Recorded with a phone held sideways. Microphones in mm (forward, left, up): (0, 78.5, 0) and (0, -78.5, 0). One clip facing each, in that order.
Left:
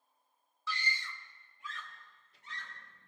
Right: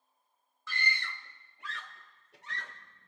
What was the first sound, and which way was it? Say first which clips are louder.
A scream: right 3 dB; 50° right (ahead or behind).